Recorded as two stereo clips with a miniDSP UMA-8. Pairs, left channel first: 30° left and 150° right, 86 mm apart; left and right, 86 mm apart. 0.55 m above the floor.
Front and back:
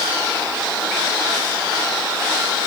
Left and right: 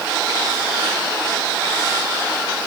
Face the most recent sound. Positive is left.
No sound to turn to.